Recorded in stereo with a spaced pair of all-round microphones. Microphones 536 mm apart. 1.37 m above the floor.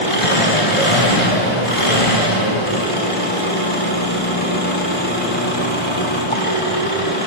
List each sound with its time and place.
0.0 s an engine running: 75° left (ahead or behind), 4.5 m